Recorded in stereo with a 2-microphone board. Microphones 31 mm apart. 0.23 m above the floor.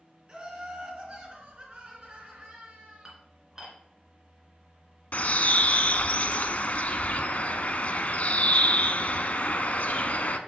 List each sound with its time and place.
0.3 s laughter: 40° right (ahead or behind), 2.5 m; by 3.1 s 55° right (ahead or behind), 3.5 m
3.0 s dishes clattering: 25° right (ahead or behind), 2 m
5.1 s a bird: 60° left (ahead or behind), 0.6 m